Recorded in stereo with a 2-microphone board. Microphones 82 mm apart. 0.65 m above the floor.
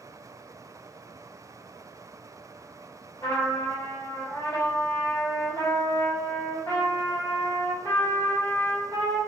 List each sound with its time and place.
3.2 s a trumpet: 35° left (ahead or behind), 1.5 m